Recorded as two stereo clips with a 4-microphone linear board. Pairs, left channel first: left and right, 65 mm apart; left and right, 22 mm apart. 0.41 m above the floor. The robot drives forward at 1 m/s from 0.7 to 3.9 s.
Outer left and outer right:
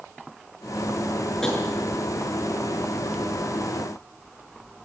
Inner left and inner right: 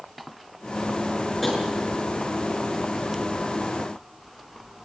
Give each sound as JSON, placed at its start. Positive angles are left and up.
{"t": 1.4, "sound": "tapping", "side_deg": 10, "distance_m": 7.5}